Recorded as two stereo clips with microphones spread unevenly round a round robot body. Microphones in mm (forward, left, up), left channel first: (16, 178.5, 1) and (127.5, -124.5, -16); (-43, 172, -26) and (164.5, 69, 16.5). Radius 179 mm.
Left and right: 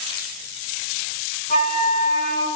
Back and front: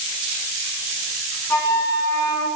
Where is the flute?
150° left, 0.9 m.